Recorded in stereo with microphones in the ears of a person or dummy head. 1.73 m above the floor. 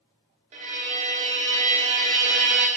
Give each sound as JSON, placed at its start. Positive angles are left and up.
{"t": 0.5, "sound": "a violin", "side_deg": -40, "distance_m": 0.9}